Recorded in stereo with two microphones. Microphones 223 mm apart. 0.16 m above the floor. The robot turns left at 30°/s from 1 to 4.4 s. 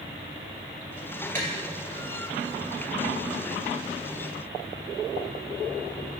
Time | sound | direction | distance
1.4 | tapping | 35° right (ahead or behind) | 2.5 m